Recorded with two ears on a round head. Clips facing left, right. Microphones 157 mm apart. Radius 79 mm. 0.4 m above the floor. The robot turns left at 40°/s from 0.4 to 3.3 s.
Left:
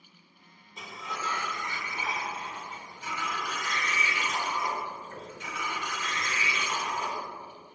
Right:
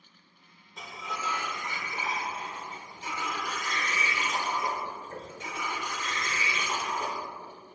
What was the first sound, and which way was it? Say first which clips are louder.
A sliding door: even; 5° left.